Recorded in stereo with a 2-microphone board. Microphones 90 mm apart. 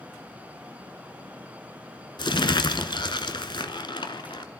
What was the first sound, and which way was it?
Crumpling, 65° left (ahead or behind).